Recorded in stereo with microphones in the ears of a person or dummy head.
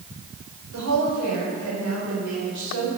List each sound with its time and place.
0.7 s a woman speaking: 85° right, 5 m